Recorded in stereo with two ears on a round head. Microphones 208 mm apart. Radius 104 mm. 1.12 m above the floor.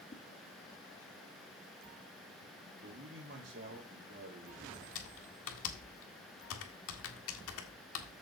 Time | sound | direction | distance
0.1 | a whoosh | 30° left (ahead or behind) | 1.3 m
2.8 | a man speaking | 35° right (ahead or behind) | 3 m
5.0 | typing on a keyboard | 65° left (ahead or behind) | 1.8 m